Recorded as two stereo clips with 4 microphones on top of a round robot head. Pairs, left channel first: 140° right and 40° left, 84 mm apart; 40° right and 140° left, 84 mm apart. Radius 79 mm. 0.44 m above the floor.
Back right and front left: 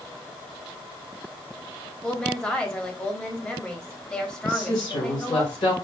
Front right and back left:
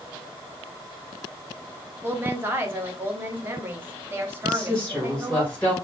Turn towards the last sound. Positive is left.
turn(degrees=-115)